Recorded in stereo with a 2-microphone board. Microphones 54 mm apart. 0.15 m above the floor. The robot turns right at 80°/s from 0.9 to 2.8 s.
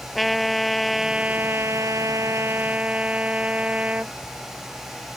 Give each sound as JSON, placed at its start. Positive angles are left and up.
{"t": 0.1, "sound": "a trumpet", "azimuth_deg": 180}